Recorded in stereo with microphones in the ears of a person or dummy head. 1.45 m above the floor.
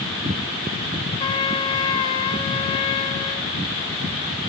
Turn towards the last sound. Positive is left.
turn(degrees=25)  # may be behind; listen again after turning